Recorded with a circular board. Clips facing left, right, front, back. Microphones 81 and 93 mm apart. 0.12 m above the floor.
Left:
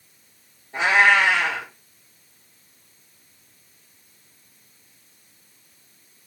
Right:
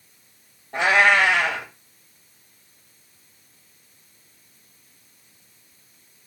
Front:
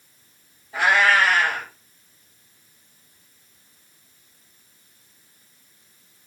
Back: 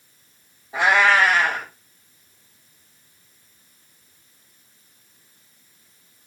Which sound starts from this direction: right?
A cat meowing, at 0.7 s.